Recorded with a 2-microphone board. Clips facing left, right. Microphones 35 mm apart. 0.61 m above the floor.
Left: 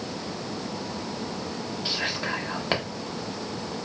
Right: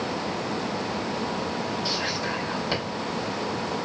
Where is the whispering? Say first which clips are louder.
Right 1 dB; 40° left (ahead or behind), 0.8 m.